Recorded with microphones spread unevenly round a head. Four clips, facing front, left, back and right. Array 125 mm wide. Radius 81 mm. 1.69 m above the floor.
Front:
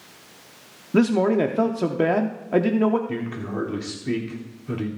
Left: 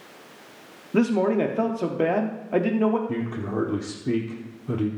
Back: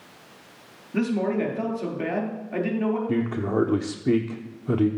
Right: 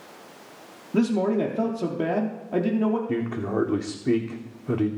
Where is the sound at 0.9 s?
40° left, 0.9 m.